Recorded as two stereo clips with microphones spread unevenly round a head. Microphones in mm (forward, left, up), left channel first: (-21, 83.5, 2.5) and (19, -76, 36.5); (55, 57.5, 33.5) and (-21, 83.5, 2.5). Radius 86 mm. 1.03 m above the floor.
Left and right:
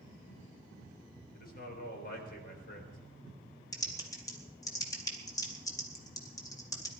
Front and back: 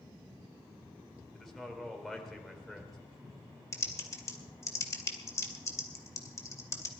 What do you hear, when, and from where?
1.3 s a man speaking: 70° left, 3.5 m
3.7 s typing on a keyboard: 30° left, 2.5 m